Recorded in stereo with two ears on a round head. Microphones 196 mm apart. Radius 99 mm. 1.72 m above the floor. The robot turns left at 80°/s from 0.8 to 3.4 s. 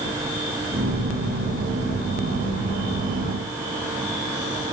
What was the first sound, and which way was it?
Only background noise.